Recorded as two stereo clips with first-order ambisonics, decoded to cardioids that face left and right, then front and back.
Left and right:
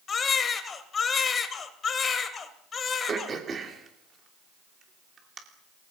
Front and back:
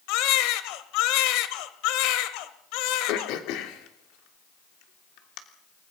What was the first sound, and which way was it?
A baby crying, 20° left.